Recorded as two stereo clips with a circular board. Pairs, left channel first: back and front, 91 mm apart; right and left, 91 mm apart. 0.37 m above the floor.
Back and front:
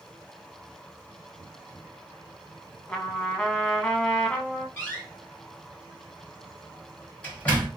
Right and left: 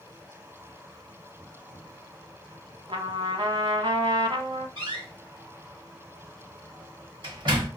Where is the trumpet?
105° left, 0.6 m.